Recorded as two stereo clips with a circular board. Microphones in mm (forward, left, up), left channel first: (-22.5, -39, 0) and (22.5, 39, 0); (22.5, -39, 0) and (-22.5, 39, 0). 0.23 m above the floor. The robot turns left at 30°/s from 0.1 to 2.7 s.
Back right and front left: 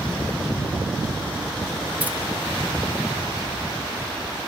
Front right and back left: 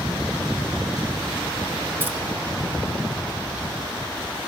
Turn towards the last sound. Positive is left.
turn(degrees=85)